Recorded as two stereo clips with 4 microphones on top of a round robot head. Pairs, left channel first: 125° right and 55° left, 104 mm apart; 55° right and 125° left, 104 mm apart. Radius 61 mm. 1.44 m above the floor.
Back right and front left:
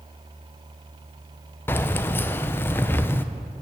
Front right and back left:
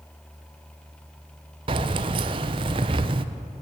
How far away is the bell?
I don't hear a bell.